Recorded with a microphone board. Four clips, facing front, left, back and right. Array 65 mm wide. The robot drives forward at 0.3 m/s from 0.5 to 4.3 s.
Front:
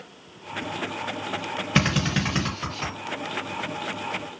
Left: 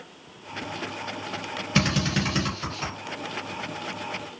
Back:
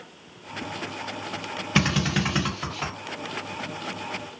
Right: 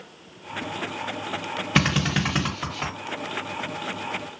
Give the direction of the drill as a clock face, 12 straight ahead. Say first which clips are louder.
Right 2 dB, even; 2 o'clock.